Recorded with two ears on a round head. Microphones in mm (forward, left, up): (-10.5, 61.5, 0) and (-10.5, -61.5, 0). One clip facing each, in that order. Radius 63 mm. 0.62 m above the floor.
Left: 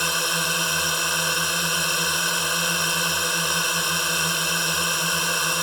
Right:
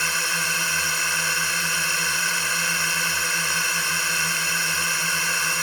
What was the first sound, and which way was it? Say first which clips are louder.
A drone: left 2 dB; 15° left (ahead or behind).